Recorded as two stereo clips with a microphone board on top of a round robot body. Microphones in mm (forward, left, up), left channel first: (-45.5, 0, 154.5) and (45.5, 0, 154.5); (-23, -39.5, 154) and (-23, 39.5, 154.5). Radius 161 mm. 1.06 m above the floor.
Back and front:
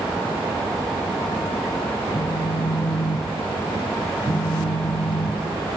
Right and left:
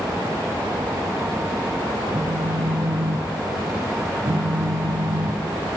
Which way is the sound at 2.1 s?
110° left.